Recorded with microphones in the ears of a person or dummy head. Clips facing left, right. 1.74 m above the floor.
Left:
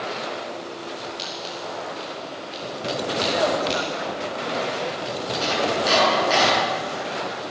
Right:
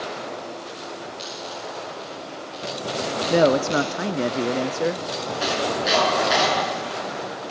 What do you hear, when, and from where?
1.2 s scissors: 65° left (ahead or behind), 7.5 m
3.3 s a man speaking: 55° right (ahead or behind), 0.5 m
5.4 s chopping: 10° right (ahead or behind), 9.5 m